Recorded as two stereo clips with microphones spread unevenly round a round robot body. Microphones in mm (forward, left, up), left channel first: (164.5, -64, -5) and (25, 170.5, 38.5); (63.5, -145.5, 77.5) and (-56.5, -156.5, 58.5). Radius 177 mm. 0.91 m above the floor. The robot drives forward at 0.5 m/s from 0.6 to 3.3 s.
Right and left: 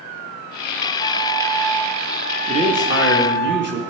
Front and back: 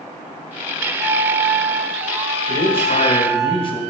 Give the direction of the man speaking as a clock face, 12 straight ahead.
10 o'clock.